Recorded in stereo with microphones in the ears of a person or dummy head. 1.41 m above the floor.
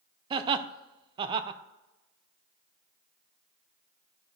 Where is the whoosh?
I don't hear a whoosh.